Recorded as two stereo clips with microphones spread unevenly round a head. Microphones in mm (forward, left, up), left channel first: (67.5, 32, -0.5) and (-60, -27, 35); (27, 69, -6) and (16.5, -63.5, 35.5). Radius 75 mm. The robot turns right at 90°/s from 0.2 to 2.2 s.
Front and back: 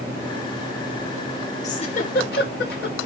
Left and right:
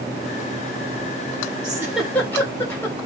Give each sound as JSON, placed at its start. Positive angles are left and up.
{"t": 1.6, "sound": "a giggle", "azimuth_deg": -45, "distance_m": 2.5}